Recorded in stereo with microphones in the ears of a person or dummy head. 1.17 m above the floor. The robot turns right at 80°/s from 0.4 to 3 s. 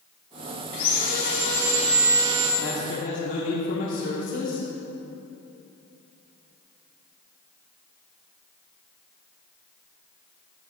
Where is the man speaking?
100° left, 3.5 m; by 4.7 s 135° left, 3.5 m.